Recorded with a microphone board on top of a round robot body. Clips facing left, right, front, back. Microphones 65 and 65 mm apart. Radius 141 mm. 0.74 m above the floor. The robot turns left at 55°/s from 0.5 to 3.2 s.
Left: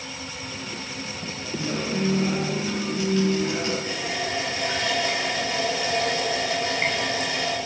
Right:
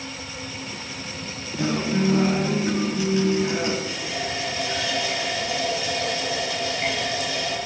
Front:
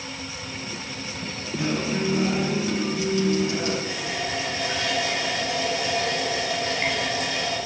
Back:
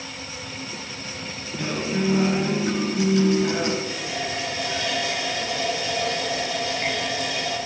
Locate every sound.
1.6 s a guitar: 80° right, 5 m; by 3.7 s 170° right, 5 m
3.8 s a running tap: 40° left, 5.5 m